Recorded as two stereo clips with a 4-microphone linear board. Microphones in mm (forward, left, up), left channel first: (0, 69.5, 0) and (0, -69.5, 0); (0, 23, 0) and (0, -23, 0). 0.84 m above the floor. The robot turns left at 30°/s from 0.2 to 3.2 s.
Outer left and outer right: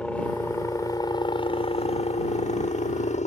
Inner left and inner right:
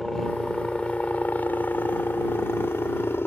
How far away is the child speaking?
No child speaking in this recording.